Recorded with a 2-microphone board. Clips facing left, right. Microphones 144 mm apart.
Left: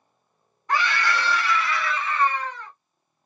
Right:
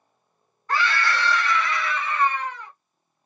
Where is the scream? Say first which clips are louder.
Even; 20° left (ahead or behind), 1.6 m; by 2.7 s 10° right (ahead or behind), 1.9 m.